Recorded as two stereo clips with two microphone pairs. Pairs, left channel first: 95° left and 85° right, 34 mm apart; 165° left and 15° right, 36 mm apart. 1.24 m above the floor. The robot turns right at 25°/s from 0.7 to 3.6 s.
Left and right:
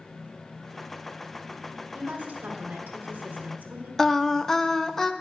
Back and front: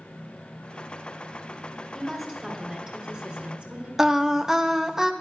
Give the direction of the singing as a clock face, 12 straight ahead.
11 o'clock.